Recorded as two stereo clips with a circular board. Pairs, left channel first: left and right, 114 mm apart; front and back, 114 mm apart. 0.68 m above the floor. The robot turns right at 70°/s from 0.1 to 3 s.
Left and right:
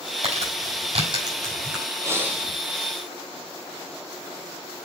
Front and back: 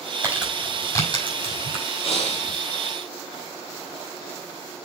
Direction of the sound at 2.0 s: 35° right.